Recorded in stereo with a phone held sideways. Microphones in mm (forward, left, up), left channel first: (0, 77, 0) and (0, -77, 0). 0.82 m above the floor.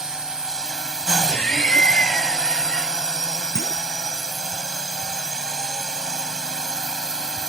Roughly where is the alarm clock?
No alarm clock in this recording.